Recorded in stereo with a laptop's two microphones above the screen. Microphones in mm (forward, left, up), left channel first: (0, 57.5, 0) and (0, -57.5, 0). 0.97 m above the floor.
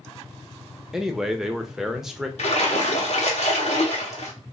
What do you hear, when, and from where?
0.9 s a man speaking: 5° right (ahead or behind), 0.7 m
2.4 s a splash: 65° left (ahead or behind), 0.8 m